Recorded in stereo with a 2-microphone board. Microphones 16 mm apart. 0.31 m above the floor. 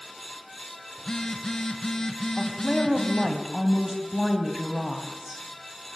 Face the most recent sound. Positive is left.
turn(degrees=-10)  # may be behind; listen again after turning